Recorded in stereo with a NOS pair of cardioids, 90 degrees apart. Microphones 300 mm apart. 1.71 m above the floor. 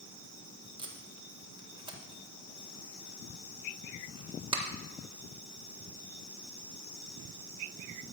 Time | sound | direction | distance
0.8 | tape being pulled | 15° right | 1.7 m